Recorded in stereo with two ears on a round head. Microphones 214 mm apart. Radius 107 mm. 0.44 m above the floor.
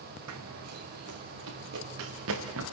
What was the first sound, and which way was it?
Running footsteps, 70° right (ahead or behind).